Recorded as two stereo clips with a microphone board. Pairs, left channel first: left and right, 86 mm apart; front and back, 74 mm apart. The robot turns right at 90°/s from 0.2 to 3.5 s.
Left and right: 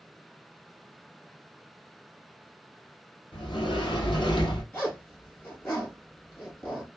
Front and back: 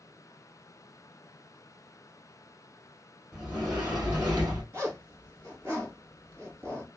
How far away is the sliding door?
About 2.5 m.